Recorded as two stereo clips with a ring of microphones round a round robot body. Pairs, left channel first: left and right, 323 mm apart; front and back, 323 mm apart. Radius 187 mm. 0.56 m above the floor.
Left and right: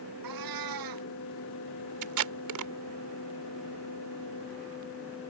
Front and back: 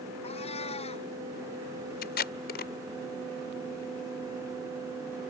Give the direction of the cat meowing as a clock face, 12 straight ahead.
2 o'clock.